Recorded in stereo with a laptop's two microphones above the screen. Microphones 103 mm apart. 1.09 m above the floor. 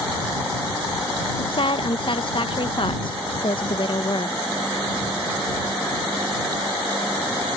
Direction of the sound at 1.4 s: 55° left (ahead or behind).